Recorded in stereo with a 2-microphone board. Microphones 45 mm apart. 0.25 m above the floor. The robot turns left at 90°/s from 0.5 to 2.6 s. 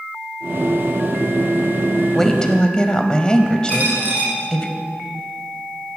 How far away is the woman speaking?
About 1.0 m.